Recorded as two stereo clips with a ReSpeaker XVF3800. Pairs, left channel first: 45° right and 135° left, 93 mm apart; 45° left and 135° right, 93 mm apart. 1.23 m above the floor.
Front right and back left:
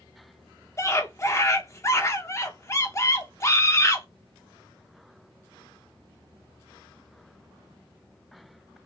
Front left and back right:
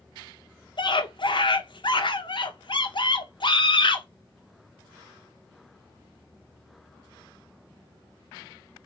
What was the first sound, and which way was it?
A scream, 15° left.